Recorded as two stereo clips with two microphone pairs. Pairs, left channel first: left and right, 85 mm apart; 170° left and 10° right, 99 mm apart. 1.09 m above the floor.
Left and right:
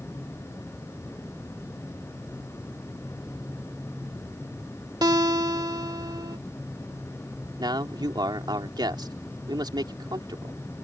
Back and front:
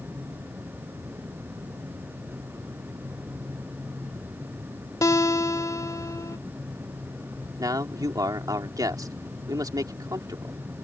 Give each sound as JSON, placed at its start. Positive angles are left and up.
{"t": 5.0, "sound": "a guitar", "azimuth_deg": -130}
{"t": 7.6, "sound": "a man speaking", "azimuth_deg": -60}